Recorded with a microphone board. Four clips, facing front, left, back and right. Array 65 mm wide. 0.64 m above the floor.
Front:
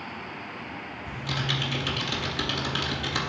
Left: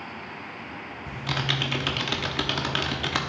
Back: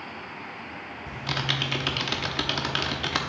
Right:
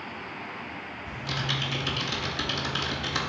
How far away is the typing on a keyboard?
About 0.7 m.